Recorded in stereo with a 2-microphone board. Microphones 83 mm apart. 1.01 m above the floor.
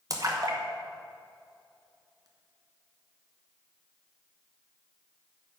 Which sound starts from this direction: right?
A splash, at 0.1 s.